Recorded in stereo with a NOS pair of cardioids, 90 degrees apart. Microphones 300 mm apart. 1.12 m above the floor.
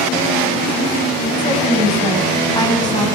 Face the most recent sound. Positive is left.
turn(degrees=15)